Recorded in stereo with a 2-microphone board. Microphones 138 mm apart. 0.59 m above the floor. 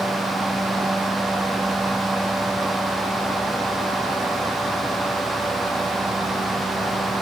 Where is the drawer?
No drawer in this recording.